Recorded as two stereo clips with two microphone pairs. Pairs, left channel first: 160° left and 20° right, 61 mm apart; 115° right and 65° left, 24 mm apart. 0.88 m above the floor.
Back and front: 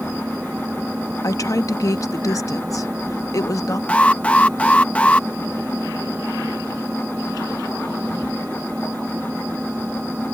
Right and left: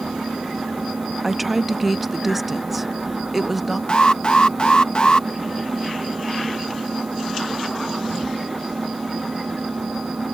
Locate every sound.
0.0 s an engine running: 50° left
1.2 s a woman speaking: 150° left
3.9 s an alarm: 140° right